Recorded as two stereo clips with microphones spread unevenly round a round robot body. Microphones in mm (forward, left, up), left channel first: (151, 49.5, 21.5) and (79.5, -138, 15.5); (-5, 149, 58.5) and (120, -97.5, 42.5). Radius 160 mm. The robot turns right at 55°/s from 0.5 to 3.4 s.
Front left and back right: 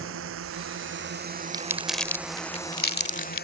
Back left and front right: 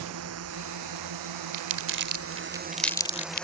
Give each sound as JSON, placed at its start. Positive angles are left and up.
{"t": 0.0, "sound": "a drone", "azimuth_deg": -105}
{"t": 1.5, "sound": "crumpling", "azimuth_deg": -40}